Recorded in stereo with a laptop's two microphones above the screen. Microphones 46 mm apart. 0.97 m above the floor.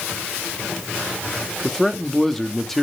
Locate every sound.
1.6 s a man speaking: 5° left (ahead or behind), 2.0 m